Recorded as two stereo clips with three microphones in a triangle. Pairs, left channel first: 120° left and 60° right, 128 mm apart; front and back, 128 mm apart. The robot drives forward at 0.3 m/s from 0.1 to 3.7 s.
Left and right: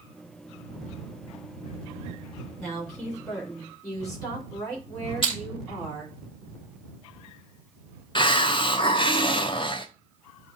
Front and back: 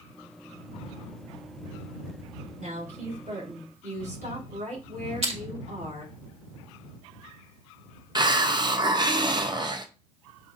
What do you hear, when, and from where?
2.6 s a woman speaking: 175° right, 4 m
5.2 s crushing: 160° left, 2 m
8.2 s a hiss: 145° left, 0.5 m